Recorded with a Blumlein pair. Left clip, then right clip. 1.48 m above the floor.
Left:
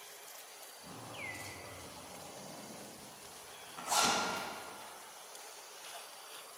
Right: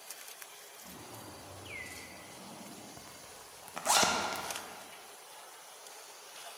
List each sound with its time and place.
0.8 s a zipper: 70° left, 2.0 m
3.0 s a zipper: 40° right, 0.9 m